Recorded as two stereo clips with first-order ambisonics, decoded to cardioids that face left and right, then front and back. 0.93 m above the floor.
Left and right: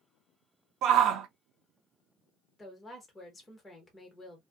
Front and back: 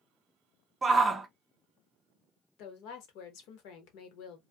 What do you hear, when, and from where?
0.8 s a shout: 110° right, 0.6 m
2.6 s a woman speaking: 5° left, 1.1 m